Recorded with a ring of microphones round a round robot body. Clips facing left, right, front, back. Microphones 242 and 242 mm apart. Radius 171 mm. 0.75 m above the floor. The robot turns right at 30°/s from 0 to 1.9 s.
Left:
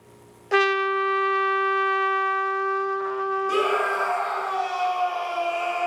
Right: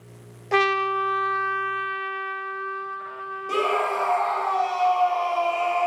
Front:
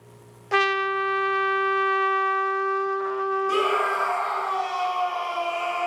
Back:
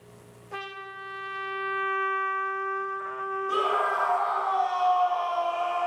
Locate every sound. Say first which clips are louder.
0.5 s a trumpet: left 2 dB, front 17 dB; 5° left, 0.5 m; by 4.0 s 50° left, 0.5 m
3.5 s a scream: right 2 dB, front 5 dB; 25° left, 0.8 m